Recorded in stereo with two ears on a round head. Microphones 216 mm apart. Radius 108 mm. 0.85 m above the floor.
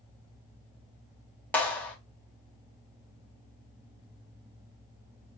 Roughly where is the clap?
Centre.